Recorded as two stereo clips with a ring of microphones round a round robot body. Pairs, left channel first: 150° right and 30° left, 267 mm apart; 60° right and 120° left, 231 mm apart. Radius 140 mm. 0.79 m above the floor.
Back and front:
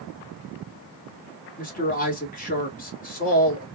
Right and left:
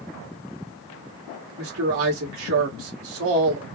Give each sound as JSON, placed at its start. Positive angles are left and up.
{"t": 1.6, "sound": "a man speaking", "azimuth_deg": 150, "distance_m": 2.5}